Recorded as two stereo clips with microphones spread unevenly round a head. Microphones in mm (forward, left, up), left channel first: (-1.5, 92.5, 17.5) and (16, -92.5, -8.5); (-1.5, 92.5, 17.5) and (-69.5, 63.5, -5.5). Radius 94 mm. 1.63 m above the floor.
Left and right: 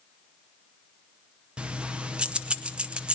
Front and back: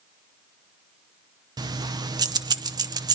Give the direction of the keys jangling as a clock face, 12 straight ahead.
6 o'clock.